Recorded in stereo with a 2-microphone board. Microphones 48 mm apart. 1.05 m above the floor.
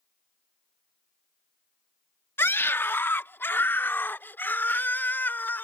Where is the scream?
55° left (ahead or behind); by 5.6 s 45° left (ahead or behind).